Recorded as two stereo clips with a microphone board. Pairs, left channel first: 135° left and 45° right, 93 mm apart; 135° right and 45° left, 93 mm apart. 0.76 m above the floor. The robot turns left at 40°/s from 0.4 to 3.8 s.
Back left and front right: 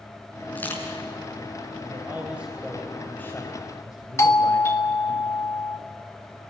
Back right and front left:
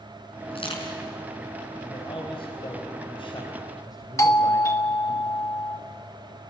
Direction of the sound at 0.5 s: 150° right.